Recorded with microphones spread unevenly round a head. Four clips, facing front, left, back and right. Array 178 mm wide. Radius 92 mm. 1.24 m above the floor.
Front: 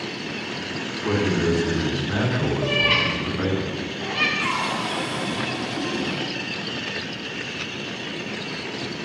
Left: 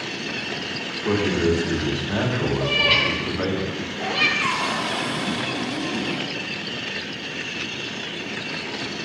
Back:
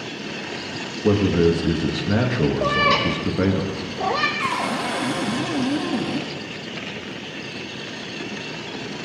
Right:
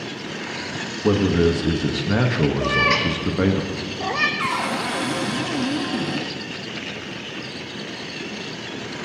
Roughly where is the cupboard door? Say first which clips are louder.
Right 1 dB, back 2 dB; behind right.